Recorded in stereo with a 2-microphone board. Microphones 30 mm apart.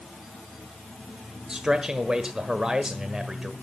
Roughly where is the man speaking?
Right.